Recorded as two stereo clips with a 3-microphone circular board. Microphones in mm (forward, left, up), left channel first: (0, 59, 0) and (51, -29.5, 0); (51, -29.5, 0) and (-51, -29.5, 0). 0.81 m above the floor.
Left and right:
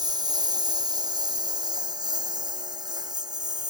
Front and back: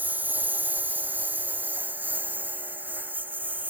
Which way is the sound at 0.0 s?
105° right.